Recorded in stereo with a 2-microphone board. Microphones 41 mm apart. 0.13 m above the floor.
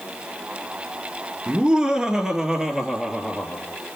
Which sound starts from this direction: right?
Laughter, at 1.5 s.